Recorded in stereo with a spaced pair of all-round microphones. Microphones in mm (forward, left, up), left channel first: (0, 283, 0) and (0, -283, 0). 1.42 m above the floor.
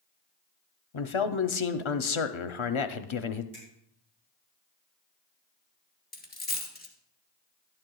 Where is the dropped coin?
15° left (ahead or behind), 1.9 m.